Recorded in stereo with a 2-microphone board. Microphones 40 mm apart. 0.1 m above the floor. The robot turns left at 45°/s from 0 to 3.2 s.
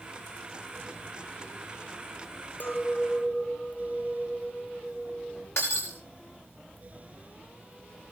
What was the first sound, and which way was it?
A clink, 50° left (ahead or behind).